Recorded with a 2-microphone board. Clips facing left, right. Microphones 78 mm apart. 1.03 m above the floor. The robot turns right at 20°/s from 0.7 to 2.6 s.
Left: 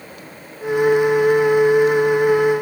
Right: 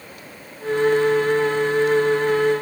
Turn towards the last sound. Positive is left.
No sound to turn to.